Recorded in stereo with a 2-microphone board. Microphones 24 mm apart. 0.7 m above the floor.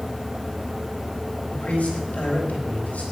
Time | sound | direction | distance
1.5 | a man speaking | 75° left (ahead or behind) | 4.5 m